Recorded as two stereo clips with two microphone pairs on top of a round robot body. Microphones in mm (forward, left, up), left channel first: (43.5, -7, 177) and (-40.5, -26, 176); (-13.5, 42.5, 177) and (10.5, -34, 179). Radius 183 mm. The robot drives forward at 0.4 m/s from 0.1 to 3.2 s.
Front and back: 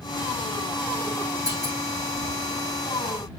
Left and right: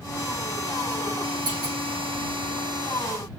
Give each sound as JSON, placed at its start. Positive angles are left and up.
{"t": 1.5, "sound": "a clunk", "azimuth_deg": -110, "distance_m": 6.5}